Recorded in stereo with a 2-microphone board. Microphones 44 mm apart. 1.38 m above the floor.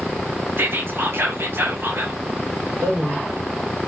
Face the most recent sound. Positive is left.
turn(degrees=-75)  # may be behind; listen again after turning